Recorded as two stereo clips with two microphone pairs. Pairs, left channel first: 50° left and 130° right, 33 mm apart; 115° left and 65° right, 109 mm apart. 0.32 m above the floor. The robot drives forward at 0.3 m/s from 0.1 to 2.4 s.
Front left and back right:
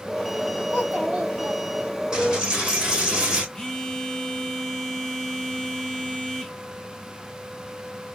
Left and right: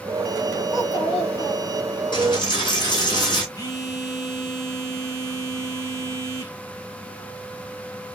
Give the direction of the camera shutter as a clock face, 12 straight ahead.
I don't hear a camera shutter.